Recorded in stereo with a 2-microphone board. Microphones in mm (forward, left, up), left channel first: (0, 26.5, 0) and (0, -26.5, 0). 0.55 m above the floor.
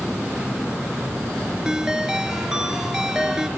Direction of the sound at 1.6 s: 15° right (ahead or behind).